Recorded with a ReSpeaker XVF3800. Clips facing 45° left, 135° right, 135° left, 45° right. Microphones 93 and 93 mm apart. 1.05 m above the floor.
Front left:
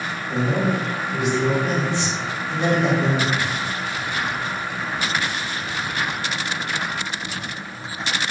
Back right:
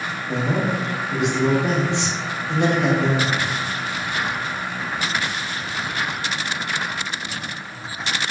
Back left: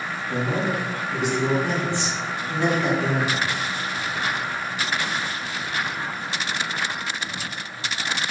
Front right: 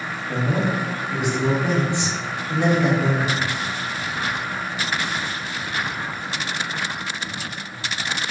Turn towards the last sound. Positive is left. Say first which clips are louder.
# front left 1 dB, front right 2 dB
turn(degrees=-115)